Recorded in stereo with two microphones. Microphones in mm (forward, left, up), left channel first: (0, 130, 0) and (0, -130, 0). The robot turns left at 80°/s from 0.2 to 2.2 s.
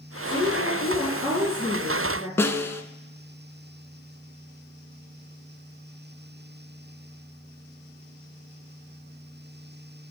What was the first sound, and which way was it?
A woman speaking, straight behind.